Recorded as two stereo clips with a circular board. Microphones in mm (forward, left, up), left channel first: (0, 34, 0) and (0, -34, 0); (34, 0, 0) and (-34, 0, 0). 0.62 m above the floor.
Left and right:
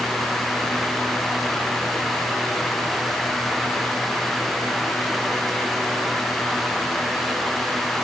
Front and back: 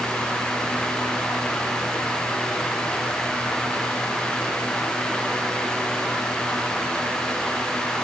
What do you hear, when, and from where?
Only background noise.